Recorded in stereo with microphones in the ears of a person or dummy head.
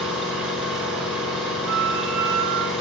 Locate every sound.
0.0 s an engine running: centre (ahead or behind), 4.5 m
1.7 s a flute: 50° right (ahead or behind), 0.9 m